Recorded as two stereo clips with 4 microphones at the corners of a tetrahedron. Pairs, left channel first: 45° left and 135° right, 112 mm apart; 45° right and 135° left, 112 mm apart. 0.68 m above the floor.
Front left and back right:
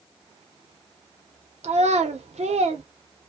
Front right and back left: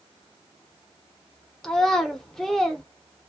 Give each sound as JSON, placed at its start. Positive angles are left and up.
{"t": 1.6, "sound": "a child speaking", "azimuth_deg": -130, "distance_m": 0.7}